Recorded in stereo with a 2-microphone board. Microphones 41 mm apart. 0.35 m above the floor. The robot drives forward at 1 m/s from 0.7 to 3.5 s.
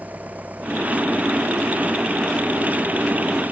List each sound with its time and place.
0.0 s an engine running: 40° right (ahead or behind); by 3.5 s 45° right (ahead or behind)